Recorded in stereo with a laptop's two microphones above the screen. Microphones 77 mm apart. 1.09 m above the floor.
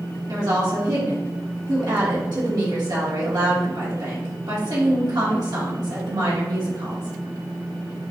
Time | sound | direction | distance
0.3 | a woman speaking | 65° right (ahead or behind) | 1.8 m